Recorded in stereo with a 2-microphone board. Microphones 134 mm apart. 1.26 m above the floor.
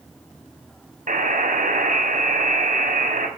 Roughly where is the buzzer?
Right.